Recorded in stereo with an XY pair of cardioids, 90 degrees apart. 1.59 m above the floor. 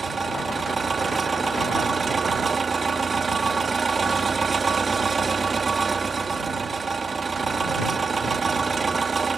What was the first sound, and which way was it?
An engine running, 30° right.